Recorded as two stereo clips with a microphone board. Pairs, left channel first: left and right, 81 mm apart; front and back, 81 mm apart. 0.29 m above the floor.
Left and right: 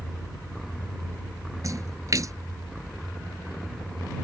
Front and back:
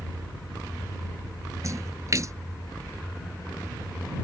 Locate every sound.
1.6 s a splash: 135° right